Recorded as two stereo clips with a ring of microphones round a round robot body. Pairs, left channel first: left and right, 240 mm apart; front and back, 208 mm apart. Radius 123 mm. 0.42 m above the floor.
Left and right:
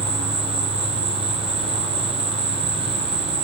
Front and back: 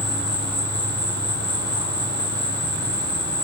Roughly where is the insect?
Ahead.